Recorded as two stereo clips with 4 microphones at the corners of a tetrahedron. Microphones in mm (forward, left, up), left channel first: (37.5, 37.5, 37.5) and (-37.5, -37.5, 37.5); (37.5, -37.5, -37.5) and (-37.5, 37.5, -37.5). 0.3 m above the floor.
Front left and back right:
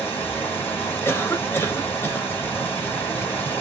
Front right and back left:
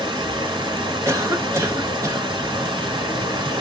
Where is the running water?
110° left, 2 m.